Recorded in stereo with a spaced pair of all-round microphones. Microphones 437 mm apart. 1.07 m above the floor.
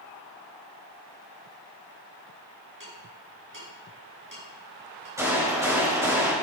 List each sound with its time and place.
2.8 s ticking: 45° right (ahead or behind), 6 m
5.2 s a gunshot: 5° right (ahead or behind), 6.5 m